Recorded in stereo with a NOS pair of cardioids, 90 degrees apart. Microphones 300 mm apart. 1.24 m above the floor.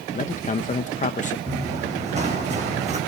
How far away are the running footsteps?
About 4.5 m.